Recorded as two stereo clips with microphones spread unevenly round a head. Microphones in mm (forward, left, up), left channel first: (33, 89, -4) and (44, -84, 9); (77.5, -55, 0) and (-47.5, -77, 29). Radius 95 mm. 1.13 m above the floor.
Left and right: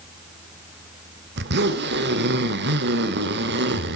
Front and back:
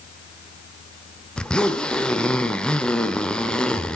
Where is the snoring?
I don't hear snoring.